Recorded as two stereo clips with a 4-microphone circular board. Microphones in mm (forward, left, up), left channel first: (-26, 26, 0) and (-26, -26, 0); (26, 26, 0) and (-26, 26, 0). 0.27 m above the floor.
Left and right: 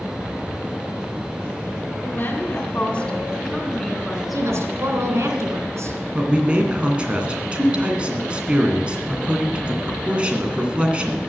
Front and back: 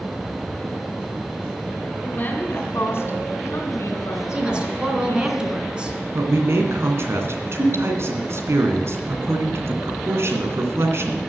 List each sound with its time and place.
2.0 s a woman speaking: 55° left, 2 m; by 5.3 s 15° right, 4 m
4.3 s a woman speaking: 110° right, 2.5 m
6.2 s a man speaking: 155° right, 2.5 m